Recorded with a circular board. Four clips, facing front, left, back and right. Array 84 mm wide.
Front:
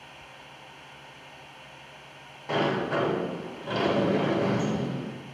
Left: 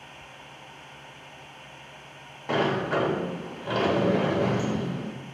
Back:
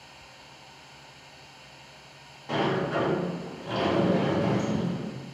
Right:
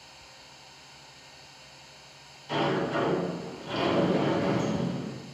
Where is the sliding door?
75° left, 0.7 m.